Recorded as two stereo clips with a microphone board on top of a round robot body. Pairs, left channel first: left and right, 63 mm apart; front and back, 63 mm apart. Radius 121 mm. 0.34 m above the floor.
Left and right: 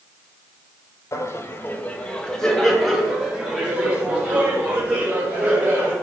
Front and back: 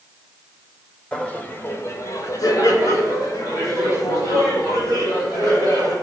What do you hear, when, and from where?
1.1 s laughter: 70° left, 1.6 m; by 5.9 s 25° right, 5.5 m